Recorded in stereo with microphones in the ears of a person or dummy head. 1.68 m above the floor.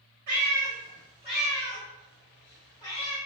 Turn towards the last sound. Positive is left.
turn(degrees=35)  # may be behind; listen again after turning